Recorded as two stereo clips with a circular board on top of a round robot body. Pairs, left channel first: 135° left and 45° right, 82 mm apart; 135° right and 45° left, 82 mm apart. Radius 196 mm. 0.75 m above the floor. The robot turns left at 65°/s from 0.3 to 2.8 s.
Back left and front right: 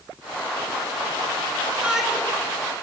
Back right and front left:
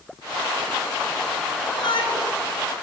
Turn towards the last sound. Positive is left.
turn(degrees=175)